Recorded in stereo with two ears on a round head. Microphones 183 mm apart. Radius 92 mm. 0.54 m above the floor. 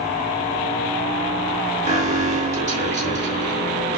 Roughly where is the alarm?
Right.